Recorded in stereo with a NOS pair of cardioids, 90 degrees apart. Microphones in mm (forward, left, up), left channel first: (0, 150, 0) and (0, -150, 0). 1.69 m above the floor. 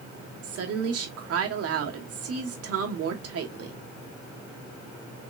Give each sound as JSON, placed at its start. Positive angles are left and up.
{"t": 0.4, "sound": "a woman speaking", "azimuth_deg": -60, "distance_m": 1.2}